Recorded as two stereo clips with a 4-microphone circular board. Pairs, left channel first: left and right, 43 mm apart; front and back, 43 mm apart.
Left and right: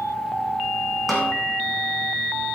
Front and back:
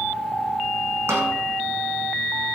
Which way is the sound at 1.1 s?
175° left.